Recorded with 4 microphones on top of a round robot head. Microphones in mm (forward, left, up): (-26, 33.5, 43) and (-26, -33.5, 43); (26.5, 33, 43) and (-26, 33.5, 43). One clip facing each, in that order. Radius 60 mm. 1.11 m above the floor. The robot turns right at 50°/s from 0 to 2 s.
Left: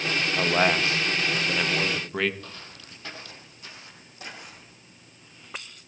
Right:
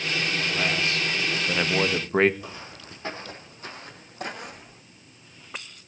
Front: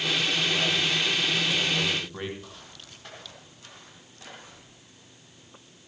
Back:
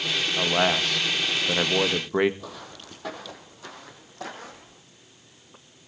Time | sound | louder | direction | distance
0.4 | a man speaking | left 7 dB, back 4 dB | 130° left | 1.8 m
2.4 | footsteps | right 4 dB, back 6 dB | 170° right | 2.5 m